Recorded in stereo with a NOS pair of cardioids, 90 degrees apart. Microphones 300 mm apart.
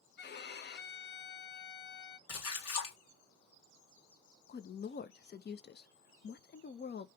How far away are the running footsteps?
No running footsteps in this recording.